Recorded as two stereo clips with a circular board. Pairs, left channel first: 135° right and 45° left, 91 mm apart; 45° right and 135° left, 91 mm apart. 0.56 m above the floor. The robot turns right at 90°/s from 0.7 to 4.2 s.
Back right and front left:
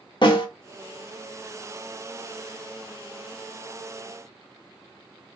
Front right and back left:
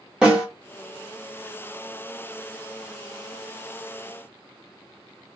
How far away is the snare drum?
About 0.9 m.